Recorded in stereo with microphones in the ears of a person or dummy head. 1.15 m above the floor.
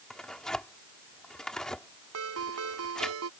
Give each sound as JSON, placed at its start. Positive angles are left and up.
{"t": 0.1, "sound": "tearing paper", "side_deg": 5}
{"t": 2.1, "sound": "a ringtone", "side_deg": -80}